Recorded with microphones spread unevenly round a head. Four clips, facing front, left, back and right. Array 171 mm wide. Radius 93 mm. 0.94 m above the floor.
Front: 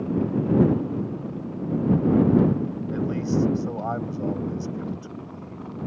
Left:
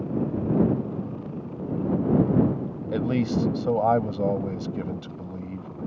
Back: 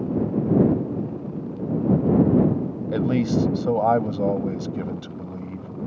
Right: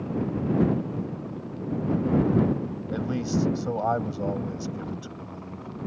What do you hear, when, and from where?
2.9 s a man speaking: 150° left